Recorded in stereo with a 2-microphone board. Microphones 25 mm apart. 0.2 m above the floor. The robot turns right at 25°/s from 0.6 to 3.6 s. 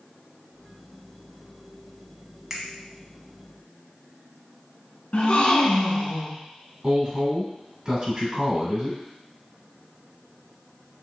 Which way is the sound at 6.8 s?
40° right (ahead or behind).